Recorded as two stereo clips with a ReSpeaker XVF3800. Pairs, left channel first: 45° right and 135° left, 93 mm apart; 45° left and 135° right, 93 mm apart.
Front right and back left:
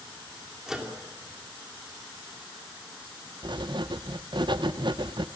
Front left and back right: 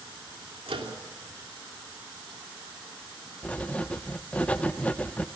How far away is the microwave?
About 3 m.